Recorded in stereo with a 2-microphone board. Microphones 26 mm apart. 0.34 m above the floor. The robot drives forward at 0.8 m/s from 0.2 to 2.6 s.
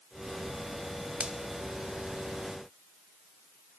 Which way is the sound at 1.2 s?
45° right (ahead or behind).